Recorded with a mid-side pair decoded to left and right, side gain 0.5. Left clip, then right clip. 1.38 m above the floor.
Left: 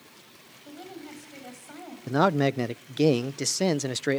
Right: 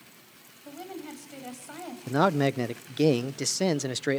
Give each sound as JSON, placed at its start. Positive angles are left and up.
{"t": 0.7, "sound": "a woman speaking", "azimuth_deg": -25, "distance_m": 8.0}
{"t": 2.1, "sound": "a man speaking", "azimuth_deg": 5, "distance_m": 0.6}